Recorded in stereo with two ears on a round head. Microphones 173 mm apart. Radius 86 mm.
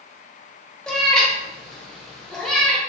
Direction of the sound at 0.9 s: 5° left (ahead or behind).